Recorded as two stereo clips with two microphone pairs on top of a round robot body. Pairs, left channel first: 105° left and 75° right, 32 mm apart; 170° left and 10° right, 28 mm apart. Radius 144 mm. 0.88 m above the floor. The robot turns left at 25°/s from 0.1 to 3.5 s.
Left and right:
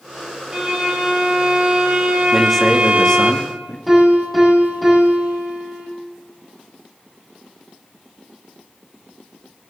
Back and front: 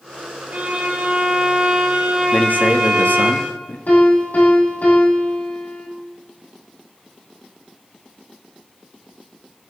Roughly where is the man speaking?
Behind.